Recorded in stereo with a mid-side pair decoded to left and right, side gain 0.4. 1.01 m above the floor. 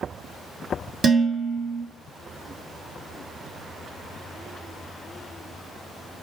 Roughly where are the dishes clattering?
Ahead right.